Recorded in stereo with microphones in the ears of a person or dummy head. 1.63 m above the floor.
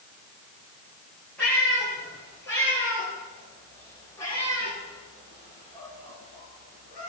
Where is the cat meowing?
15° left (ahead or behind), 6.5 m; by 7.1 s 45° left (ahead or behind), 4 m.